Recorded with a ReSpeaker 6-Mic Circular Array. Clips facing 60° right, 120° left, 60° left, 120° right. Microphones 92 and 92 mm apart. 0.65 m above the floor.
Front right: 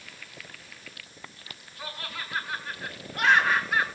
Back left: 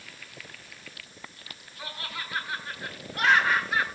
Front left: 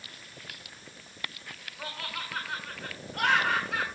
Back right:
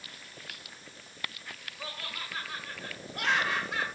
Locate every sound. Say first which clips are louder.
1.8 s laughter: even, front left 4 dB; 40° left, 8 m